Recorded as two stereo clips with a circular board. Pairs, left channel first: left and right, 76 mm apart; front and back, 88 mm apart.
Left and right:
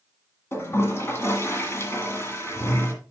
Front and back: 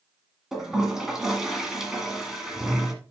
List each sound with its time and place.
0.5 s a toilet flushing: 100° left, 1.6 m